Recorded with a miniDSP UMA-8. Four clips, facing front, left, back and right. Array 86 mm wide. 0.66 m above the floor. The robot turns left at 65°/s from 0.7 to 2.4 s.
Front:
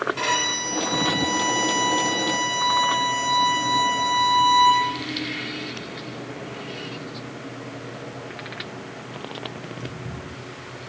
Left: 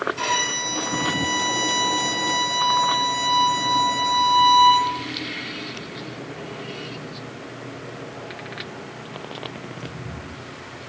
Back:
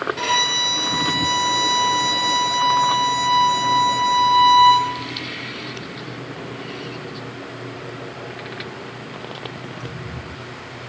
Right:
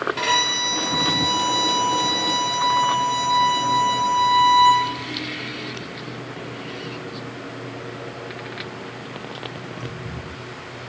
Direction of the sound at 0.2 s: 85° right.